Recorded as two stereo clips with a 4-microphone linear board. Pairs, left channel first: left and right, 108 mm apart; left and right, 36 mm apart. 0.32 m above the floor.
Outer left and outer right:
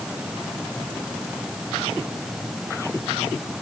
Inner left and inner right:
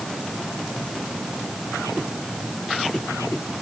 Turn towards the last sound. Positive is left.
No sound to turn to.